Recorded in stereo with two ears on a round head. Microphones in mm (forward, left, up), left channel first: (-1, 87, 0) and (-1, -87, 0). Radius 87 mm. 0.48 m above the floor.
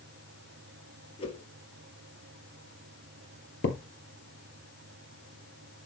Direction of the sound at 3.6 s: 65° left (ahead or behind).